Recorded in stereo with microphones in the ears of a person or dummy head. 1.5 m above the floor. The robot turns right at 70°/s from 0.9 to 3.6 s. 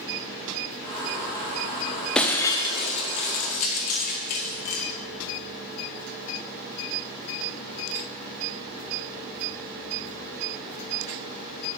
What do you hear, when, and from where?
2.1 s breaking glass: 5° left (ahead or behind), 0.9 m; by 4.8 s 35° left (ahead or behind), 0.9 m